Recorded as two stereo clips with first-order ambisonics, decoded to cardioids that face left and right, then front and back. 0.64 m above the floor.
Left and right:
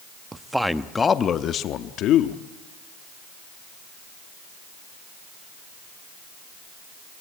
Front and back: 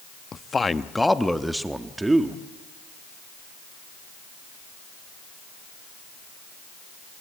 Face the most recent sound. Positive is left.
turn(degrees=105)